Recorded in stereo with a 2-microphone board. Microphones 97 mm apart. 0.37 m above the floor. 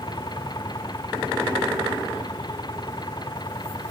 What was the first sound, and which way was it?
An engine running, 45° left (ahead or behind).